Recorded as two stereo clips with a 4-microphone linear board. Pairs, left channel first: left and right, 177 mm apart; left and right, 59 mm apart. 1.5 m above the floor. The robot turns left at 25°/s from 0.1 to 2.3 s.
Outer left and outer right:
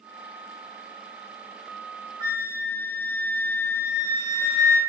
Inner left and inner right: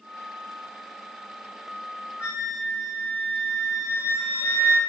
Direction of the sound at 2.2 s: 25° right (ahead or behind).